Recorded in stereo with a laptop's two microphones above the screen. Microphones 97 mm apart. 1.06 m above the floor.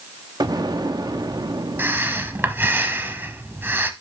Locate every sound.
0.4 s an explosion: 45° right (ahead or behind), 0.8 m
1.8 s breathing: 20° right (ahead or behind), 1.0 m